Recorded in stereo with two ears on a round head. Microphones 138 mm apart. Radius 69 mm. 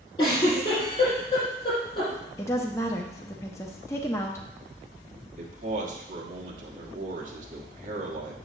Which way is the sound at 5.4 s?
50° right (ahead or behind).